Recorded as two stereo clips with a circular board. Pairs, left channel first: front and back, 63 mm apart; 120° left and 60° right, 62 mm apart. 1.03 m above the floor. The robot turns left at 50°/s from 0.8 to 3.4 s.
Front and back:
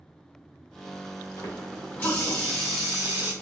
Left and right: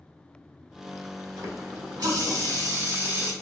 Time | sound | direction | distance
1.4 | a running tap | 30° right | 2 m